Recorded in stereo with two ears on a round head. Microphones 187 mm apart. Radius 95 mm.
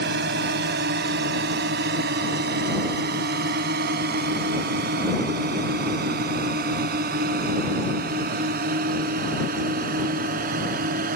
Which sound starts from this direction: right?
A drone, at 0.0 s.